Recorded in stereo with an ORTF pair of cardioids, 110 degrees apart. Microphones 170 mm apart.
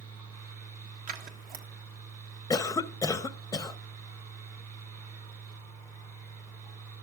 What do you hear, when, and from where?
0.0 s a fan: 65° right, 3 m
1.1 s scissors: 60° right, 1.6 m
2.5 s a cough: 20° left, 0.7 m